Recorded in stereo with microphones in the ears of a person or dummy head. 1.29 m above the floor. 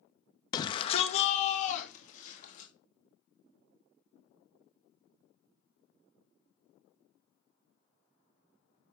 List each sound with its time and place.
0.5 s a shout: 25° left (ahead or behind), 1.0 m; by 2.7 s 55° left (ahead or behind), 3.5 m